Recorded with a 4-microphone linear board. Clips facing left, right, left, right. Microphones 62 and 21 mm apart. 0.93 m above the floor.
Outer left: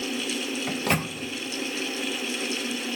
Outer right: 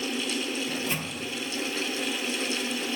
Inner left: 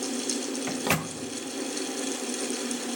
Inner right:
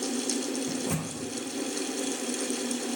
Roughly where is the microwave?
Left.